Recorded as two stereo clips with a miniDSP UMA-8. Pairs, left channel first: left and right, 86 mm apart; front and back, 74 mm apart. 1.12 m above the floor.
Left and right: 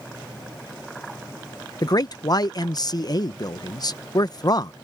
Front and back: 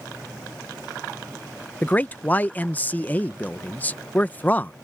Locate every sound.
1.8 s a man speaking: 60° left